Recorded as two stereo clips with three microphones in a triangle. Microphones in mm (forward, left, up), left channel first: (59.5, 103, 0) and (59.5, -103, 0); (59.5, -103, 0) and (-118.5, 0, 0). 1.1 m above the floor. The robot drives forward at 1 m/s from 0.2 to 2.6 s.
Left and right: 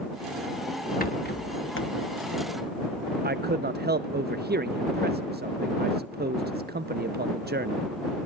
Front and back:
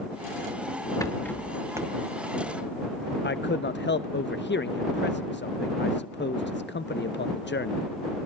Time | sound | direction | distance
1.0 | a rattle | 45° left | 1.4 m
3.2 | a man speaking | 55° right | 0.5 m